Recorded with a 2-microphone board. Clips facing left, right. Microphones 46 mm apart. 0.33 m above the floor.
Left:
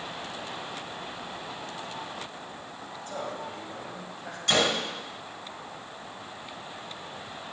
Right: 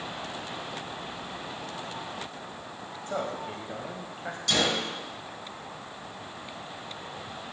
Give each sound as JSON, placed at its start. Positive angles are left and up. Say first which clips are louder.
{"t": 3.1, "sound": "a man speaking", "louder": "right 3 dB", "side_deg": -35, "distance_m": 1.9}
{"t": 4.5, "sound": "a gunshot", "louder": "left 2 dB", "side_deg": 40, "distance_m": 1.5}